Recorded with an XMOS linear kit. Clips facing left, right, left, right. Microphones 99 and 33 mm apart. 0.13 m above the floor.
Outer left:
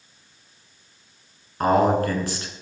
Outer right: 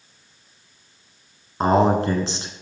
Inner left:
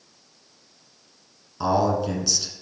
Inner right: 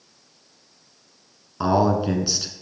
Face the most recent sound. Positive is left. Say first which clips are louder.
# outer right 1 dB, inner right 2 dB
turn(degrees=-25)  # may be behind; listen again after turning